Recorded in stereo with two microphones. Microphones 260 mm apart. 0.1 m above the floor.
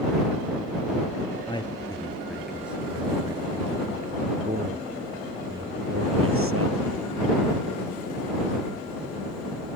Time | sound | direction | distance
1.5 | a man speaking | 20° left (ahead or behind) | ?